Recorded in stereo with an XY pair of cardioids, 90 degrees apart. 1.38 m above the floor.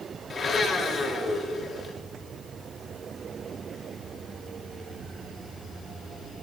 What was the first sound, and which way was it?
A blender, 55° left.